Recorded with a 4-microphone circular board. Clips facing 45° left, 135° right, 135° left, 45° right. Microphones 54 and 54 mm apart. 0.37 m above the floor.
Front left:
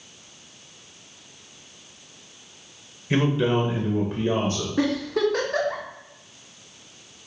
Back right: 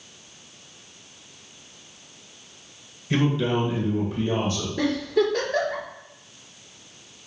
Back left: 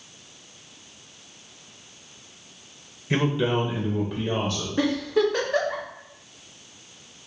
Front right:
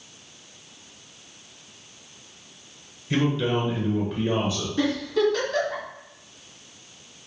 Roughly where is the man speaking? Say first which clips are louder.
Front left 1 dB, even; left.